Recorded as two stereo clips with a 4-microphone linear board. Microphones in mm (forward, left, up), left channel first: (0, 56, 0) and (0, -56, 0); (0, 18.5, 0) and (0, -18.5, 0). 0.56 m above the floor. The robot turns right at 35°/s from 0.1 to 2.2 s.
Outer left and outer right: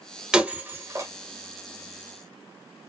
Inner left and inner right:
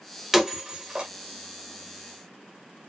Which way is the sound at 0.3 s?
5° right (ahead or behind).